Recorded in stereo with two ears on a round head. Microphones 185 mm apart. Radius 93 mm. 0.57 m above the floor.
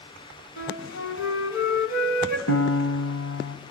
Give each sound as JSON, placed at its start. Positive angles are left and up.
{"t": 0.6, "sound": "a flute", "side_deg": 75, "distance_m": 2.5}
{"t": 2.5, "sound": "a piano", "side_deg": 70, "distance_m": 1.8}